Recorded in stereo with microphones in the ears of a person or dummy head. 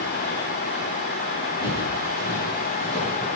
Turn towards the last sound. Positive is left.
turn(degrees=10)  # may be behind; listen again after turning